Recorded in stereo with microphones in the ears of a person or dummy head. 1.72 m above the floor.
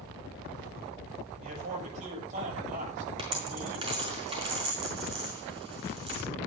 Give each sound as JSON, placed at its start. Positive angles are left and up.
{"t": 1.4, "sound": "a man speaking", "side_deg": -50, "distance_m": 9.0}
{"t": 3.2, "sound": "a dropped coin", "side_deg": -40, "distance_m": 4.5}